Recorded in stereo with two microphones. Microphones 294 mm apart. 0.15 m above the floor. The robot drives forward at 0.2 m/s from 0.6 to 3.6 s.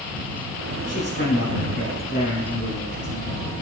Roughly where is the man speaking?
Left.